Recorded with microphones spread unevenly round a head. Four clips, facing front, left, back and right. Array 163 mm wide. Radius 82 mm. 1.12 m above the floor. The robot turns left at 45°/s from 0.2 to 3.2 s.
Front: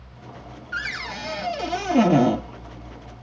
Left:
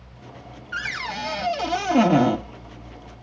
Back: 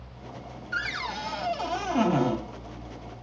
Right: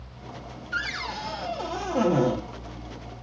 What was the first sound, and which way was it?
A cupboard door, 115° left.